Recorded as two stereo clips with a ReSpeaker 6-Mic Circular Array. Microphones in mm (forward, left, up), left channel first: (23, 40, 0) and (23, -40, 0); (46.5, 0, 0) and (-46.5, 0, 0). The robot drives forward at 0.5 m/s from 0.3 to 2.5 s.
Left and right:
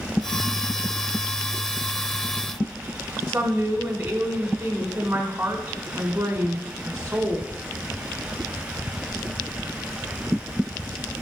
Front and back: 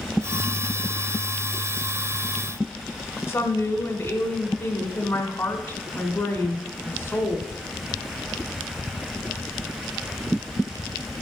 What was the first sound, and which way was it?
A woman speaking, 35° right.